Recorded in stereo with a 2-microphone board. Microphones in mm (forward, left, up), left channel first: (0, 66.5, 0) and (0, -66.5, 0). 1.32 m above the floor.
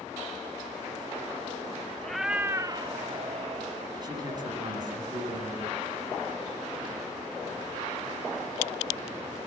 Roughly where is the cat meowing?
Centre.